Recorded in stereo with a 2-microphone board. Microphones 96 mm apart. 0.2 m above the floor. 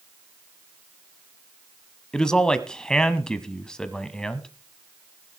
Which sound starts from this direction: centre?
A man speaking, at 2.1 s.